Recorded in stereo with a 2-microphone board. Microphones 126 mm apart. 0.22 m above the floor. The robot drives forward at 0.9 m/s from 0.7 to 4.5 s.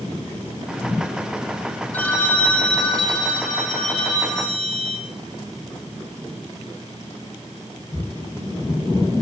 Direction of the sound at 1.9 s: 15° left (ahead or behind).